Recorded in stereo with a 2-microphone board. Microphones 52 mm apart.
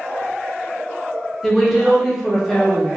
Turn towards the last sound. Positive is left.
turn(degrees=-5)  # may be behind; listen again after turning